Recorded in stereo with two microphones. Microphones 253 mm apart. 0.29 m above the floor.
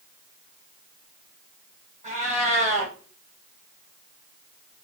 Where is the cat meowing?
30° right (ahead or behind), 2 m.